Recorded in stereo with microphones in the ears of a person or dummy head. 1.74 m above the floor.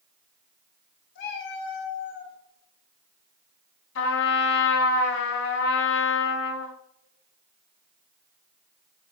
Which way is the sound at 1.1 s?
55° left (ahead or behind).